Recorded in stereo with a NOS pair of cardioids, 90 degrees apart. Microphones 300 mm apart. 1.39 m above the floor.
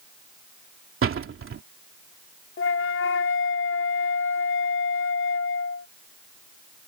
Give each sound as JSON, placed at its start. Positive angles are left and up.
{"t": 1.0, "sound": "a door slam", "azimuth_deg": -45}
{"t": 2.6, "sound": "a flute", "azimuth_deg": 45}